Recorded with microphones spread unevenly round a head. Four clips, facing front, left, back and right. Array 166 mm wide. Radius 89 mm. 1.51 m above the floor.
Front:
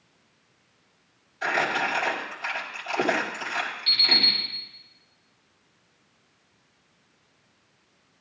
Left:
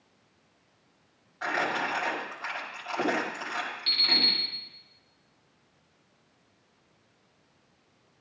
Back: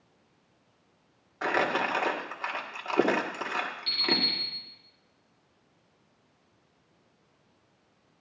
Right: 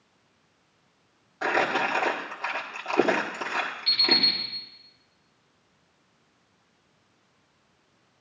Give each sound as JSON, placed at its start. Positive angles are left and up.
{"t": 1.4, "sound": "crumpling", "azimuth_deg": -125, "distance_m": 1.7}
{"t": 3.9, "sound": "an alarm clock", "azimuth_deg": 120, "distance_m": 3.0}